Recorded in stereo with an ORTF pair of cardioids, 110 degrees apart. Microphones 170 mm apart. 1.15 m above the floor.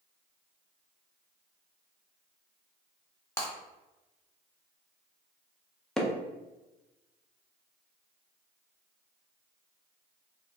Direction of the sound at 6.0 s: 5° left.